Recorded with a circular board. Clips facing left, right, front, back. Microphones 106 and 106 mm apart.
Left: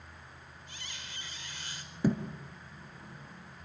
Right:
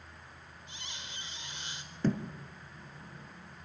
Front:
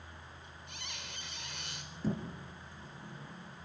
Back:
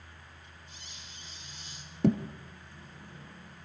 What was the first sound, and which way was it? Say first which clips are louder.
A squeak: right 1 dB, front 4 dB; 20° right.